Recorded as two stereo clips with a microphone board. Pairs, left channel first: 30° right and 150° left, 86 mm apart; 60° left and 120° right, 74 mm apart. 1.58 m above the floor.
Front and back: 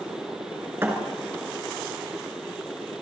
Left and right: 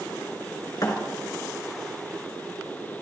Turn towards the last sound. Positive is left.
turn(degrees=90)